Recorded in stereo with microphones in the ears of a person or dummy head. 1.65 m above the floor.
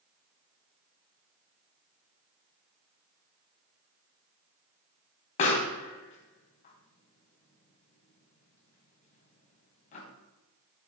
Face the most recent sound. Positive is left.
turn(degrees=45)  # may be behind; listen again after turning